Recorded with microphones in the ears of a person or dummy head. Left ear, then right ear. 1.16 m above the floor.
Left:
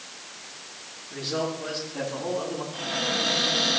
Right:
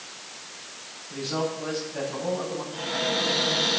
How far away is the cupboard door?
About 3 m.